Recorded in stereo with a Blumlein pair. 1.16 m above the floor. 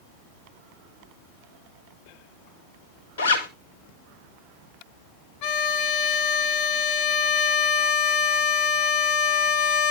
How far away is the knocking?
I don't hear knocking.